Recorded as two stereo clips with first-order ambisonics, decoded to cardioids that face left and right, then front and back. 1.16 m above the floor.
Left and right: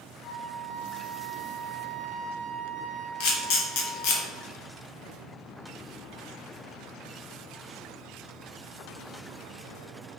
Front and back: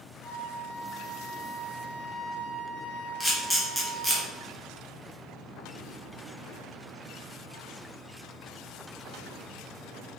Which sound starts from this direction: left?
A camera shutter, at 3.2 s.